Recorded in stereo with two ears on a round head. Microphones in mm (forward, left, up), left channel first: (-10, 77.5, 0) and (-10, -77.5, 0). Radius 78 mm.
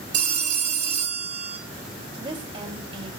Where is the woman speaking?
30° right (ahead or behind), 3 m.